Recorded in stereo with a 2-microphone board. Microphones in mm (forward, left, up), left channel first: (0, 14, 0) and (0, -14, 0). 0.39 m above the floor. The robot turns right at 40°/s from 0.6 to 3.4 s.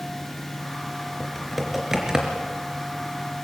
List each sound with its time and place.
1.2 s typing on a keyboard: 10° left (ahead or behind), 3.5 m; by 2.4 s 35° right (ahead or behind), 3.5 m